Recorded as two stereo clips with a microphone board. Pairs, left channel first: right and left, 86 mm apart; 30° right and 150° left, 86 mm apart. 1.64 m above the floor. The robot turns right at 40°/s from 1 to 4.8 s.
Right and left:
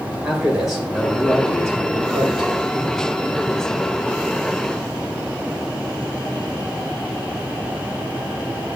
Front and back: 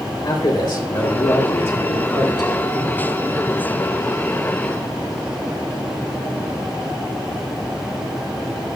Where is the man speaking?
5° left, 2.5 m; by 2.7 s 70° left, 2.5 m.